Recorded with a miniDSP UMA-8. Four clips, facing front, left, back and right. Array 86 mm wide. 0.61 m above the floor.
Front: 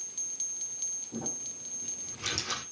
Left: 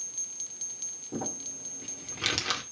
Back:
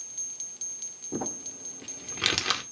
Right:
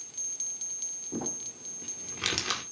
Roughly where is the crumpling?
Behind.